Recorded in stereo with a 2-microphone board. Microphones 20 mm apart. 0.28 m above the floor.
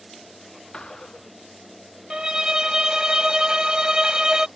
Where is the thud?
50° left (ahead or behind).